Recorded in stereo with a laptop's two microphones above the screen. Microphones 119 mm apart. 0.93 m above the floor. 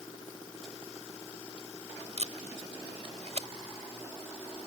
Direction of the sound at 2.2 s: 65° right (ahead or behind).